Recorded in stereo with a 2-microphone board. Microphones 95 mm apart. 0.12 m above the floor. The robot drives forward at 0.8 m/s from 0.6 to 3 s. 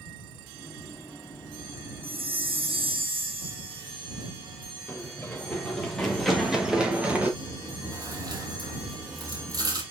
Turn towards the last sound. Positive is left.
turn(degrees=-40)  # may be behind; listen again after turning